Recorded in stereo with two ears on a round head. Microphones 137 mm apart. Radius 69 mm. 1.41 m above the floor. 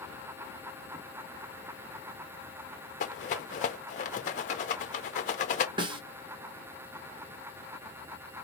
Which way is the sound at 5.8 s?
30° right (ahead or behind).